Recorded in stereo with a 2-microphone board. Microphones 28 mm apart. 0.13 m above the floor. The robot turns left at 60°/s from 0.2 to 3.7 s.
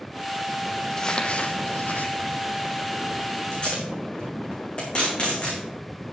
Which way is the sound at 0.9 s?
15° left (ahead or behind).